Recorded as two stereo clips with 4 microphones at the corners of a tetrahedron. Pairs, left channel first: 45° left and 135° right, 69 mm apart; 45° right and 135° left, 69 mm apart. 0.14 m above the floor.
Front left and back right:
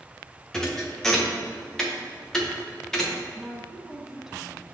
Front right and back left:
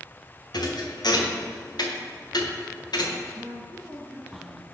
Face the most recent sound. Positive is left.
turn(degrees=150)